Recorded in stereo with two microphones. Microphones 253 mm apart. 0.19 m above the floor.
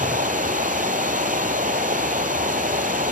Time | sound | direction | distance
0.0 | running water | 35° right (ahead or behind) | 0.8 m